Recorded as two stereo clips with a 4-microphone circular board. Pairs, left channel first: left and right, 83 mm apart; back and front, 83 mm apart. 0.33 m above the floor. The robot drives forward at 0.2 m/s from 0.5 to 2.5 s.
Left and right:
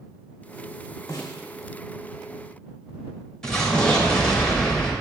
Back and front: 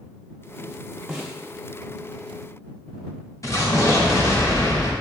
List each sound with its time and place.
1.1 s a snare drum: 75° left, 0.9 m; by 1.4 s 80° left, 0.8 m
3.4 s an explosion: 165° left, 0.7 m